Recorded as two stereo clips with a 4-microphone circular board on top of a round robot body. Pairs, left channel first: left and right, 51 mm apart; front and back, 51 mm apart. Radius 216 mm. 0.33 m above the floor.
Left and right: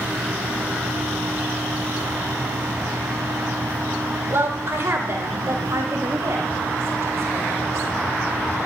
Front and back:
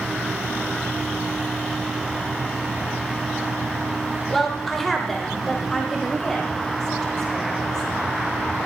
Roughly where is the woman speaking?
Right.